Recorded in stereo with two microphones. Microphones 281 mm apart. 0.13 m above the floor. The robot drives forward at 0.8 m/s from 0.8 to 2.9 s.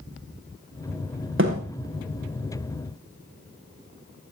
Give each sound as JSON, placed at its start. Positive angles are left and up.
{"t": 1.4, "sound": "a thud", "side_deg": -45, "distance_m": 6.5}